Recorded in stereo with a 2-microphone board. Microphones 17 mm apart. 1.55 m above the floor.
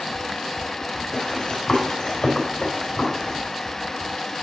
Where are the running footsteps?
45° left (ahead or behind), 5 m; by 3.4 s 15° left (ahead or behind), 5 m.